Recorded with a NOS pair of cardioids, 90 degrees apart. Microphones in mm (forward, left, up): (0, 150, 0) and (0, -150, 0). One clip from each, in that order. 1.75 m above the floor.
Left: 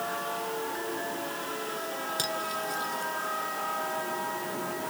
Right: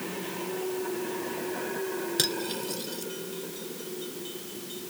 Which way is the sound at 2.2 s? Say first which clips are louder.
Right 2 dB; 40° right.